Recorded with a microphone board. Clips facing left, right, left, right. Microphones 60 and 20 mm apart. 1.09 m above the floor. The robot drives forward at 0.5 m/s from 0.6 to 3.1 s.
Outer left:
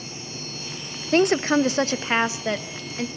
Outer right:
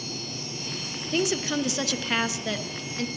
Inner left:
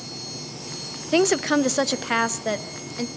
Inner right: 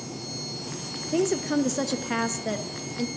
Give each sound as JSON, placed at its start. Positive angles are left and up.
{"t": 1.1, "sound": "a woman speaking", "side_deg": 55, "distance_m": 0.6}